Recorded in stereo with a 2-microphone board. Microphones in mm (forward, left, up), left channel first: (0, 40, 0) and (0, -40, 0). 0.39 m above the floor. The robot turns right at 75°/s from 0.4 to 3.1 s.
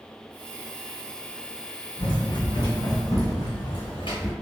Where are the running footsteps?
70° left (ahead or behind), 1.1 m; by 4.3 s 75° left (ahead or behind), 1.5 m.